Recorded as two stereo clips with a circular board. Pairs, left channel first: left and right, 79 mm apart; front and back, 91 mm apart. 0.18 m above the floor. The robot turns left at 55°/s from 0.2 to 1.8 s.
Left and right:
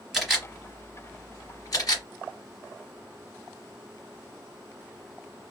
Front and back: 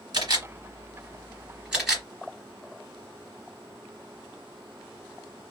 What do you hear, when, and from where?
0.1 s a camera shutter: straight behind, 1.9 m; by 2.0 s 95° left, 1.9 m